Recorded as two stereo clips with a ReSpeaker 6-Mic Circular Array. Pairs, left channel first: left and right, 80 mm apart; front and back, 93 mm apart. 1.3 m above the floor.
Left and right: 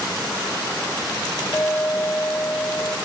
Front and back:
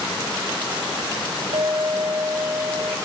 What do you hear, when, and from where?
1.5 s a clink: straight behind, 1.4 m